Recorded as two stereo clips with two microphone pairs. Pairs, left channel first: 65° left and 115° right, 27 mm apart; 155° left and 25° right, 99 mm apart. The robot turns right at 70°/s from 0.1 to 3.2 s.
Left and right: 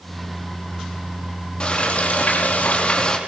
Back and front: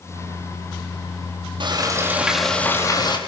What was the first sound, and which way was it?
Frying, 10° left.